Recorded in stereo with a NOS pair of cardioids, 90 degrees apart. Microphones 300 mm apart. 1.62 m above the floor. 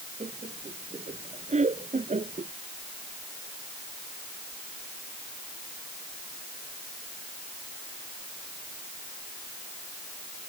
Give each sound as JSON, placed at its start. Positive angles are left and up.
{"t": 0.2, "sound": "laughter", "azimuth_deg": -25}